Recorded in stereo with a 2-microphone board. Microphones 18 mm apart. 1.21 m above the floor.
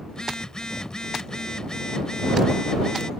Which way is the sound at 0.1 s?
40° left (ahead or behind).